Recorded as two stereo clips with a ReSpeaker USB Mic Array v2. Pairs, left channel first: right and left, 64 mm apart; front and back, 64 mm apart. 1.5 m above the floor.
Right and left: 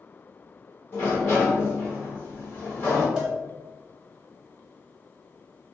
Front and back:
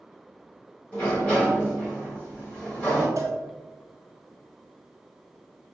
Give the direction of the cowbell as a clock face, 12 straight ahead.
6 o'clock.